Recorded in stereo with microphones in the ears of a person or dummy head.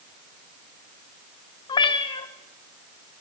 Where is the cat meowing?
30° left (ahead or behind), 0.7 m.